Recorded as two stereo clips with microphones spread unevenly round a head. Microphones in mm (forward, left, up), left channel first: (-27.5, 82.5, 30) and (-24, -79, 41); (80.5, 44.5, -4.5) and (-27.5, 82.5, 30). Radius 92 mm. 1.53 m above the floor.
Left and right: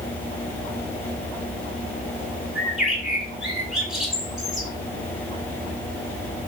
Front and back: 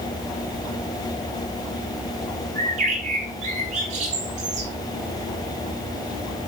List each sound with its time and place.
2.5 s a bird: 175° right, 2.5 m